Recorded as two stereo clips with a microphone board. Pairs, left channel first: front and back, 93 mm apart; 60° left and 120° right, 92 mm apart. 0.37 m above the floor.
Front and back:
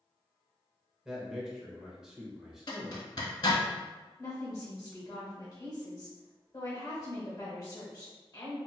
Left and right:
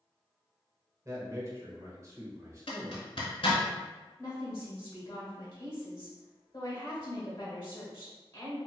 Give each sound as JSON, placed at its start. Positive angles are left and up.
{"t": 1.1, "sound": "a man speaking", "azimuth_deg": -100, "distance_m": 0.9}
{"t": 2.7, "sound": "a zipper", "azimuth_deg": 40, "distance_m": 1.0}
{"t": 4.2, "sound": "a woman speaking", "azimuth_deg": 25, "distance_m": 1.4}